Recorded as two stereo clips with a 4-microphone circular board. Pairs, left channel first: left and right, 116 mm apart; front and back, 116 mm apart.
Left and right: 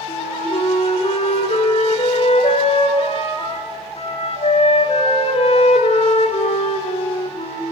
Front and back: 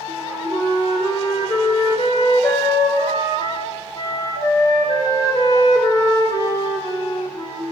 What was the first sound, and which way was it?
A flute, 55° left.